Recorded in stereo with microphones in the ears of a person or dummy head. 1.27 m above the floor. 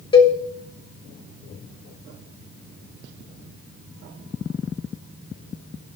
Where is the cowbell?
30° left (ahead or behind), 1.3 m.